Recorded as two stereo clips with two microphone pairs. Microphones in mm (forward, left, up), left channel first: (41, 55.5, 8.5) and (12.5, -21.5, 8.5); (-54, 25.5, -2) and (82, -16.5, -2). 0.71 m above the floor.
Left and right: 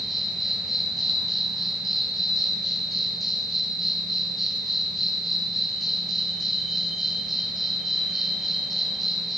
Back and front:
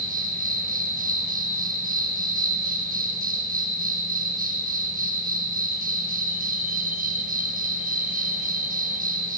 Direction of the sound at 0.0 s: 20° right.